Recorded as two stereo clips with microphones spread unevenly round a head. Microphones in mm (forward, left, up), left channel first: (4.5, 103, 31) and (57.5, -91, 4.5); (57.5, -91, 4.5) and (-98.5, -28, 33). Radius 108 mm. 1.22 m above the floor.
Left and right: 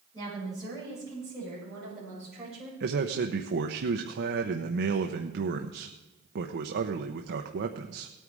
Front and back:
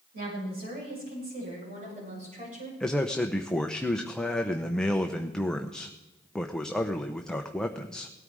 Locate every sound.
0.1 s a woman speaking: straight behind, 7 m; by 2.7 s 165° right, 8 m
2.8 s a man speaking: 105° right, 0.9 m